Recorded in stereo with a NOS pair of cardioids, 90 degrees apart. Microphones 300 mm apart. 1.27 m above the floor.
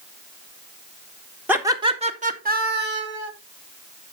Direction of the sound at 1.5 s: 5° right.